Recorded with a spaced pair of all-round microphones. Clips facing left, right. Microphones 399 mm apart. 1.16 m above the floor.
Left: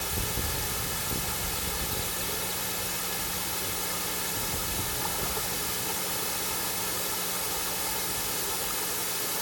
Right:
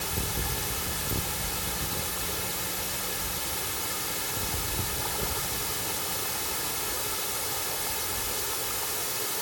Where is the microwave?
No microwave in this recording.